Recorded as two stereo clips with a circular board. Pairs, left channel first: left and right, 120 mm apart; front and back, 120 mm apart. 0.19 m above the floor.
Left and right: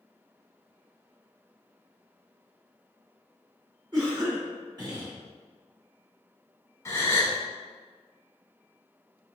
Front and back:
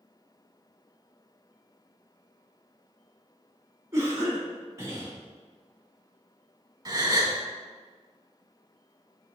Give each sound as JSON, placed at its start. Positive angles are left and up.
{"t": 3.9, "sound": "a cough", "azimuth_deg": -125, "distance_m": 1.9}
{"t": 6.8, "sound": "a gasp", "azimuth_deg": 145, "distance_m": 0.8}